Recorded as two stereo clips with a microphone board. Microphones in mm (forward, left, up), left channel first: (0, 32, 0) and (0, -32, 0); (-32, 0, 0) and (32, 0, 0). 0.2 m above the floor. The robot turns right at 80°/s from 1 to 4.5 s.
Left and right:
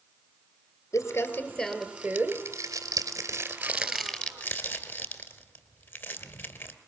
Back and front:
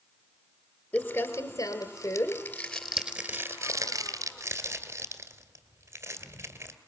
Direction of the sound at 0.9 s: 125° left.